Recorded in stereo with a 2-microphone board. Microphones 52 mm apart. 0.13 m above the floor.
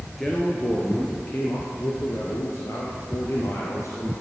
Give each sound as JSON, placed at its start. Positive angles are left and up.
{"t": 0.2, "sound": "a man speaking", "side_deg": 5, "distance_m": 1.6}